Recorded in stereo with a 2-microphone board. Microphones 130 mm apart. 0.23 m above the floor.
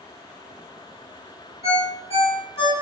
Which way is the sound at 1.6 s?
55° left (ahead or behind).